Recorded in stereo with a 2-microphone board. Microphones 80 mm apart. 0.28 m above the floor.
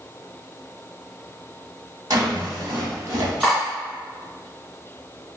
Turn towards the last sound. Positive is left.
turn(degrees=-10)  # may be behind; listen again after turning